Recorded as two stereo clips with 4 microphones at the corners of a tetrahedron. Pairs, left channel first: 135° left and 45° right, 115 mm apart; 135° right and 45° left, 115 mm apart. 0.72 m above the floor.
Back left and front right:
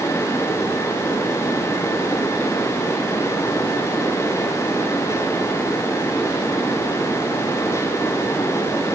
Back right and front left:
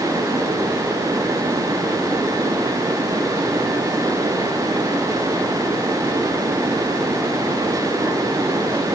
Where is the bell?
I don't hear a bell.